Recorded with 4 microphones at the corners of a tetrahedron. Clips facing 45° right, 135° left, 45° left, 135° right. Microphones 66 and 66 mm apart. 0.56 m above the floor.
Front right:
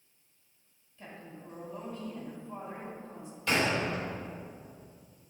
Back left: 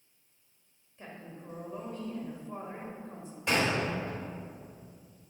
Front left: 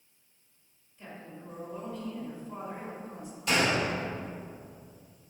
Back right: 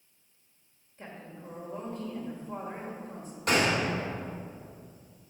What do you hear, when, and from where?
1.0 s a woman speaking: straight behind, 1.8 m
3.5 s a gunshot: 165° right, 2.5 m